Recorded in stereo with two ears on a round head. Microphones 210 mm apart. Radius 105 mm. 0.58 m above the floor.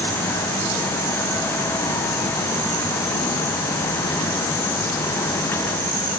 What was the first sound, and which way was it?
Only background noise.